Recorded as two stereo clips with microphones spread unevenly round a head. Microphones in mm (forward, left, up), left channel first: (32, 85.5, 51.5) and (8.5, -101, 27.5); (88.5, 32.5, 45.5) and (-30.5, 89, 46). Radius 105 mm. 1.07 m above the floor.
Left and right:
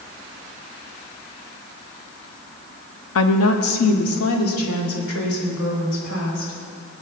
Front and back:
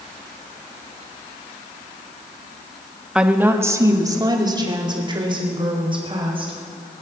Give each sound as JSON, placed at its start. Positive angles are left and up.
{"t": 3.1, "sound": "a woman speaking", "azimuth_deg": 70, "distance_m": 1.2}